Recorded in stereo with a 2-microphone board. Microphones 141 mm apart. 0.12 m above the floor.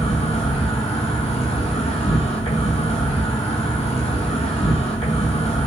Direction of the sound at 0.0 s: 45° left (ahead or behind).